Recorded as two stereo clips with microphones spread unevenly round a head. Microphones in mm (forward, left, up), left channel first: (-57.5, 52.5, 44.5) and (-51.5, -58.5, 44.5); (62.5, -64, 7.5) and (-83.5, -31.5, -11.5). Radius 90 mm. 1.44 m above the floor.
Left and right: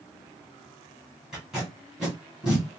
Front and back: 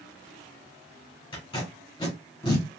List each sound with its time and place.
1.3 s tape being pulled: straight ahead, 1.5 m